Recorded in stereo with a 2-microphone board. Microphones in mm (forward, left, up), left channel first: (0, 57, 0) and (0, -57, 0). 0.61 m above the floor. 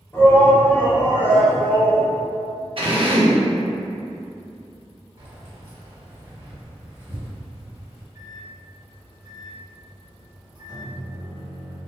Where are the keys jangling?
30° right (ahead or behind), 1.3 m.